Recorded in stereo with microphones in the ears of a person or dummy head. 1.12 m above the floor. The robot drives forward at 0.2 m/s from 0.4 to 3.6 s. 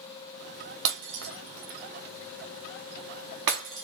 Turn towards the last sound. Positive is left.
turn(degrees=-65)  # may be behind; listen again after turning